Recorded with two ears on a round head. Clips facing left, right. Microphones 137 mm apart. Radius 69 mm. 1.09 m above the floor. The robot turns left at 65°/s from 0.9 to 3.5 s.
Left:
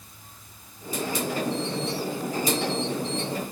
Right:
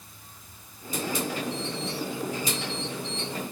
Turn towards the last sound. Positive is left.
No sound to turn to.